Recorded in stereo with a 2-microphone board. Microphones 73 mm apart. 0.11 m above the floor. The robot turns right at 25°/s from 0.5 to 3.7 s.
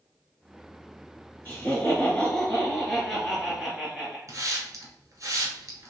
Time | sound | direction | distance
1.4 | laughter | 135° left | 1.6 m
4.3 | a hiss | 50° right (ahead or behind) | 1.1 m